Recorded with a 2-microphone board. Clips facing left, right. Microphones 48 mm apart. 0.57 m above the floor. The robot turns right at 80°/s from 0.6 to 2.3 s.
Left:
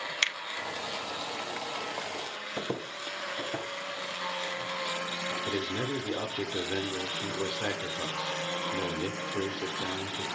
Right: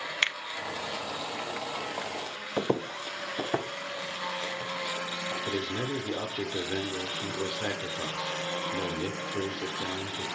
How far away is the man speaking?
About 1.3 m.